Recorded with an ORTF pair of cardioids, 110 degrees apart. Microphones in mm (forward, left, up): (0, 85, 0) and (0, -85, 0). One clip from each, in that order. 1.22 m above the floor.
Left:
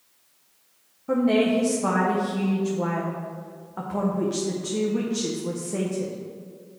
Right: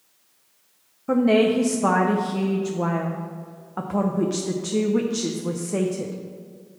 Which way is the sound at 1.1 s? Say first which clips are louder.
Right 3 dB; 25° right.